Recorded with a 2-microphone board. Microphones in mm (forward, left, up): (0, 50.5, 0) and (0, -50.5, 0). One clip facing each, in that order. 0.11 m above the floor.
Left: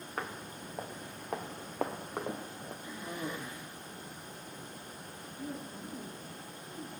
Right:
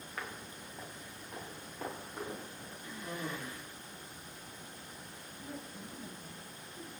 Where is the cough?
20° left (ahead or behind), 3.5 m.